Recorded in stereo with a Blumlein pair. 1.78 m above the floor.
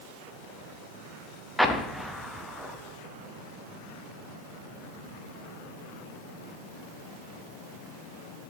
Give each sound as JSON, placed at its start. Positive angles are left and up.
{"t": 1.6, "sound": "an explosion", "azimuth_deg": 0, "distance_m": 0.6}